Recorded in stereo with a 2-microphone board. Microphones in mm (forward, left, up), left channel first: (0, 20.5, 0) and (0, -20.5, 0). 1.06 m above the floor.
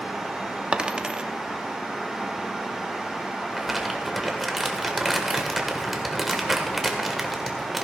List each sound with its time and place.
0.7 s a dropped coin: 25° right (ahead or behind), 0.7 m
3.5 s crumpling: 5° right (ahead or behind), 1.5 m